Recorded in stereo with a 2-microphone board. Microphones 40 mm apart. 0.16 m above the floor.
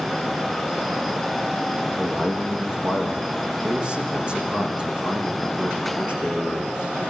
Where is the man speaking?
20° right (ahead or behind), 6 m; by 6.9 s 30° right (ahead or behind), 11 m.